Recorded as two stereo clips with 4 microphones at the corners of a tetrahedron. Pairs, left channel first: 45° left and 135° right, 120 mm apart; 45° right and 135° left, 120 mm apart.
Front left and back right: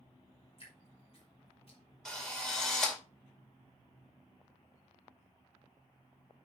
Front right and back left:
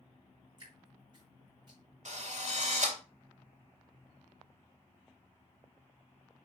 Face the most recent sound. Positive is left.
turn(degrees=130)